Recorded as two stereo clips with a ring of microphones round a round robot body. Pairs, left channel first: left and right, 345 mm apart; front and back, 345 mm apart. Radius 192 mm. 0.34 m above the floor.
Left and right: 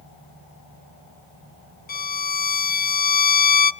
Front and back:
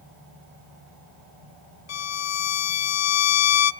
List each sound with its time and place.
1.9 s a violin: 30° left, 0.7 m